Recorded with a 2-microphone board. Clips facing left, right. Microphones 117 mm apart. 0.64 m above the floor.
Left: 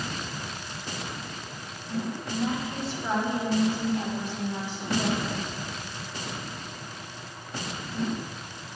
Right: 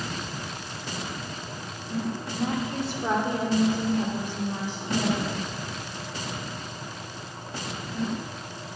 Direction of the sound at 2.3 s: 50° right (ahead or behind).